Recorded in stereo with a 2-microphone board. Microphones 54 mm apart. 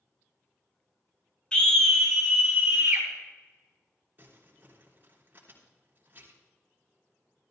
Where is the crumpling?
35° right (ahead or behind), 3.5 m.